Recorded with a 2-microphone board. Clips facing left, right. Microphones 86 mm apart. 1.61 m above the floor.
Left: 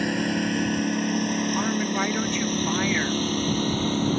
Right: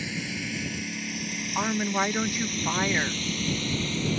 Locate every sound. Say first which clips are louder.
0.0 s a lawn mower: left 10 dB; 60° left (ahead or behind); by 4.2 s 45° left (ahead or behind)
1.6 s a woman speaking: left 2 dB; 10° right (ahead or behind)